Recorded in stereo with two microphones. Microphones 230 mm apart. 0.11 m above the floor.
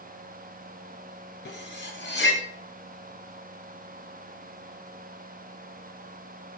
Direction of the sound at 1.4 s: 55° left (ahead or behind).